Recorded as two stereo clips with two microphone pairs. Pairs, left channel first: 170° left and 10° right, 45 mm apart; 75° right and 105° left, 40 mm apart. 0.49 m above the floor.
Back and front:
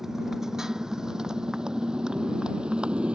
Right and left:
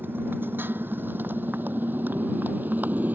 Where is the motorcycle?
70° left; by 3.2 s 60° left.